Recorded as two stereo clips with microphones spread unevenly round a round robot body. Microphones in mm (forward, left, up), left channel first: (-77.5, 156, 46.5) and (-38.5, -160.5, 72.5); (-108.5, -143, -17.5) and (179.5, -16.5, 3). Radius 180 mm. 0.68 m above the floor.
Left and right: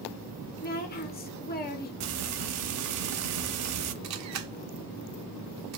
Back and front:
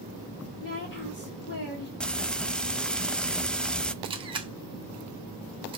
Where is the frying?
65° right, 0.6 m.